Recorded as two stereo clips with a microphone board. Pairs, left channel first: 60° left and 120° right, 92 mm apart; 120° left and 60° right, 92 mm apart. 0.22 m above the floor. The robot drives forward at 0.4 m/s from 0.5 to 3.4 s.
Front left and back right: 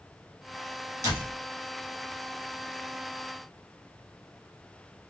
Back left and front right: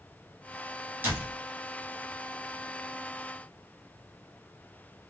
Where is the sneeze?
No sneeze in this recording.